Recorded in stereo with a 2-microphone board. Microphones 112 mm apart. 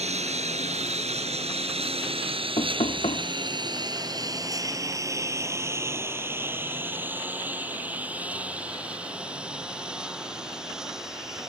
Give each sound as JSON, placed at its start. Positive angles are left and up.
{"t": 0.0, "sound": "a lawn mower", "side_deg": -85}
{"t": 2.6, "sound": "knocking", "side_deg": 75}